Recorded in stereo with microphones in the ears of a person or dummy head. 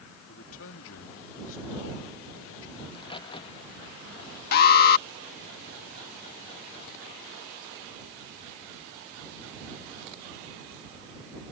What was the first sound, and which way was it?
A man speaking, 75° left (ahead or behind).